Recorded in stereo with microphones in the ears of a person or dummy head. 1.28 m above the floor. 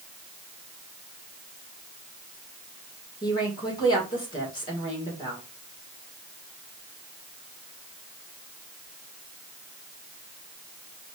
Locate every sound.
3.2 s a woman speaking: 25° left (ahead or behind), 1.8 m